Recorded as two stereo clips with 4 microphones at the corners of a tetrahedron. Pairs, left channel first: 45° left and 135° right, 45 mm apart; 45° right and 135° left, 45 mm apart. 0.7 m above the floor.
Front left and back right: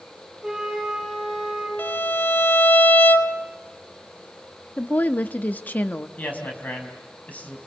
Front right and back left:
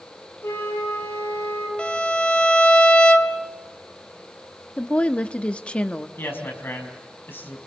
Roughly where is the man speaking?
Ahead.